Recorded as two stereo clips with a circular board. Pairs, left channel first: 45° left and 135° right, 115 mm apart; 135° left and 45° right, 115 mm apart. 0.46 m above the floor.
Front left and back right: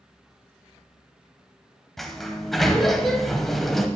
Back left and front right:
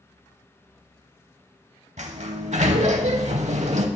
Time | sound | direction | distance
2.0 | a sliding door | 40° right | 0.7 m